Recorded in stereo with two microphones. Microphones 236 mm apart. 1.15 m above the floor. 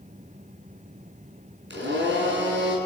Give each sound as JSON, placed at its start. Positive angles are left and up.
{"t": 1.7, "sound": "a blender", "side_deg": -55, "distance_m": 7.0}